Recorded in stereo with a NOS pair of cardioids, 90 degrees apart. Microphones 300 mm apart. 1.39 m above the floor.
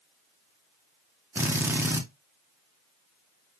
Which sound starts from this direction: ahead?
A drill, at 1.4 s.